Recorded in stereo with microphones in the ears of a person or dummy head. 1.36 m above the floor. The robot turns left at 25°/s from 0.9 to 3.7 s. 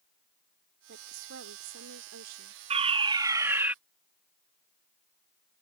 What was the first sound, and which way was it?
A woman speaking, 70° right.